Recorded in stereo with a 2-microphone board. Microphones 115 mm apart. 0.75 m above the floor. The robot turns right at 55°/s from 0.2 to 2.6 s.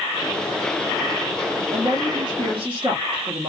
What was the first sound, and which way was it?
A woman speaking, 130° right.